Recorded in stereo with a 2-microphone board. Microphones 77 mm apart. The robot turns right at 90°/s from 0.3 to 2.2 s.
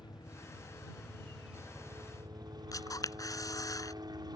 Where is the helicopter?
85° left; by 4.4 s 105° right.